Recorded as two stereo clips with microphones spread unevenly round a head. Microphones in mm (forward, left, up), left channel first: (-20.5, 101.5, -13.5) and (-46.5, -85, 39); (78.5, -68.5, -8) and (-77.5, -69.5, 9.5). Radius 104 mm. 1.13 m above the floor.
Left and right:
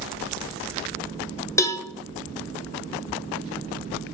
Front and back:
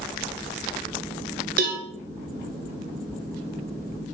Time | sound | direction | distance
1.6 | a cowbell | 145° left | 1.0 m